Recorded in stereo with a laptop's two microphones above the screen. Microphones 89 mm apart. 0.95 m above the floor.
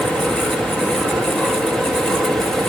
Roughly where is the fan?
Centre.